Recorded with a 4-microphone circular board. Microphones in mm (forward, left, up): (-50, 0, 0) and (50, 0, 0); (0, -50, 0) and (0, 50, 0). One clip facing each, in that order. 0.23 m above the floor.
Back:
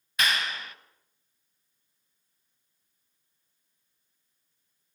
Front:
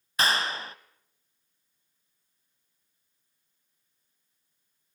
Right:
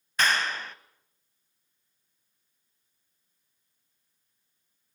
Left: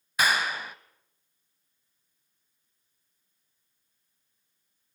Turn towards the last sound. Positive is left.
turn(degrees=20)